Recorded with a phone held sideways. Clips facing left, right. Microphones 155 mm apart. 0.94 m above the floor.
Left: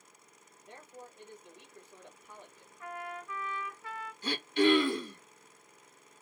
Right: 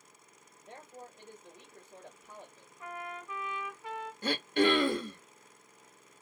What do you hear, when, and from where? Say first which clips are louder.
0.6 s a man speaking: right 1 dB; 25° right (ahead or behind), 1.5 m
2.8 s a trumpet: left 1 dB; 20° right (ahead or behind), 0.8 m
4.2 s throat clearing: left 1 dB; 55° right (ahead or behind), 1.0 m